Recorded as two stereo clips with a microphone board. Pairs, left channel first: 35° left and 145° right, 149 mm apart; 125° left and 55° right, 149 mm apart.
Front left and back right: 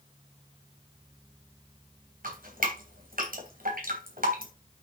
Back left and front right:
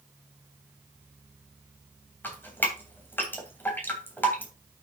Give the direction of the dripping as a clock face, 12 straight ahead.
5 o'clock.